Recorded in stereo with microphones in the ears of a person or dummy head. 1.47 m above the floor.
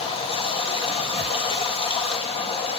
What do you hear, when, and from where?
0.0 s running water: 25° left (ahead or behind), 2 m